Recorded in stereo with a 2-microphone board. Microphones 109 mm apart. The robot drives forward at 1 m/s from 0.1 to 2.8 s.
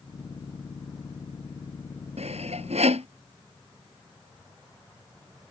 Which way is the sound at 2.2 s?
80° right.